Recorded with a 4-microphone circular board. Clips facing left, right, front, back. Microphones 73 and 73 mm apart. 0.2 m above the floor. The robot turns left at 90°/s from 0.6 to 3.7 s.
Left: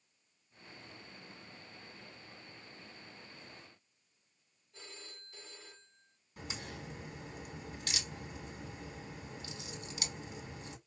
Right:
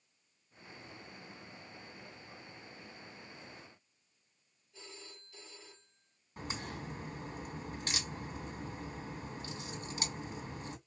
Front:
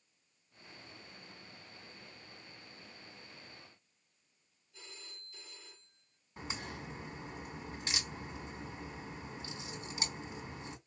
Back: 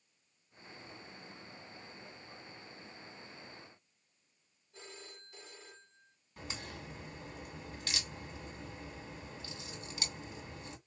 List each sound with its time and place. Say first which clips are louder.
4.7 s a phone ringing: right 1 dB, back 4 dB; 140° left, 3 m
6.4 s a crack: right 3 dB, front 2 dB; 50° right, 2 m